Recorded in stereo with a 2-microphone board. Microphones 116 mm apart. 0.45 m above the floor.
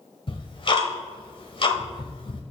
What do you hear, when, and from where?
0.3 s ticking: 50° left (ahead or behind), 1.3 m